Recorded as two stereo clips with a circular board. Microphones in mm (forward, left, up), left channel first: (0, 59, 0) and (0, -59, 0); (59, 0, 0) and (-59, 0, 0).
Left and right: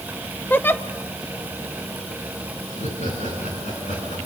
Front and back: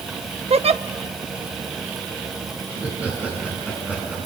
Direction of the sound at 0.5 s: 160° left.